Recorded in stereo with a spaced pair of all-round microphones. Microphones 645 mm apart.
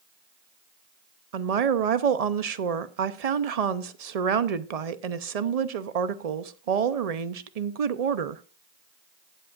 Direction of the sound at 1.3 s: 70° right (ahead or behind).